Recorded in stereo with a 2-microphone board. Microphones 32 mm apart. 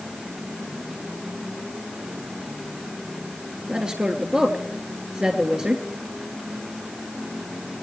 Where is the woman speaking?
25° right (ahead or behind), 3 m.